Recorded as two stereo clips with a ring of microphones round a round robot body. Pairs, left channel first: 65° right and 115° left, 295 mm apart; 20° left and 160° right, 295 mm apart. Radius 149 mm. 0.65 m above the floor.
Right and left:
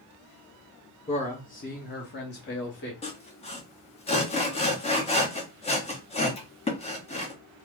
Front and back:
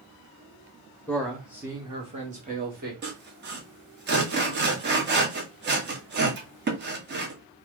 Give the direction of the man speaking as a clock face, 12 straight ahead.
2 o'clock.